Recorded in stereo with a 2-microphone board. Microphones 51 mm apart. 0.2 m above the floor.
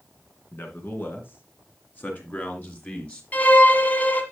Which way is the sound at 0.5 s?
45° left (ahead or behind).